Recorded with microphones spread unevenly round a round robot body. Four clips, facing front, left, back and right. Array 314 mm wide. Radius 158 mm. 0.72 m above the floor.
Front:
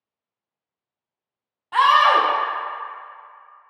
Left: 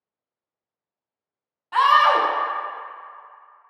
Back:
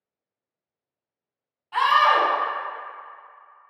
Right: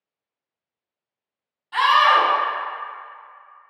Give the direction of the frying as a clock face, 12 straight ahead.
No frying in this recording.